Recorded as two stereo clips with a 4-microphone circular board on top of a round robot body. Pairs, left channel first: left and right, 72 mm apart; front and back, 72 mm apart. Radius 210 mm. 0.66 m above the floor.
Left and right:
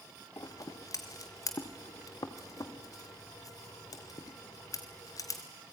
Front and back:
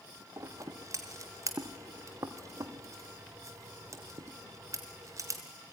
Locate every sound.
0.4 s scissors: 130° left, 0.8 m